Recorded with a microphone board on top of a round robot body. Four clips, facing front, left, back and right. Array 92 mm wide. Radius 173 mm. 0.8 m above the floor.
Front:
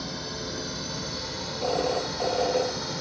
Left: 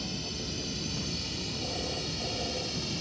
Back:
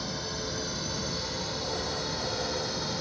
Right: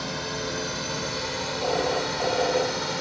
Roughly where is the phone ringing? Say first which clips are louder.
Right 13 dB, front 11 dB; ahead right.